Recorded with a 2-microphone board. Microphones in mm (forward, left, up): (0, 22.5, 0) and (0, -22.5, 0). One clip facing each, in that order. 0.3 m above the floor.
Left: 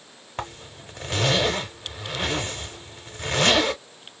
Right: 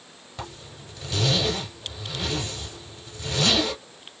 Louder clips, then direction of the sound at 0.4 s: Left 4 dB; 40° left (ahead or behind).